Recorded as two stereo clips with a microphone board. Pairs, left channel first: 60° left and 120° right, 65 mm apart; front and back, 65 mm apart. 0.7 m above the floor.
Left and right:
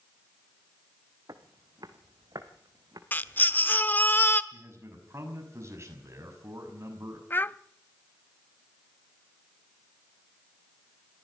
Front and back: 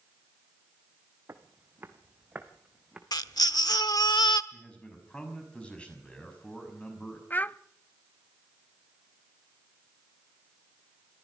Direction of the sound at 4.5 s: 75° right.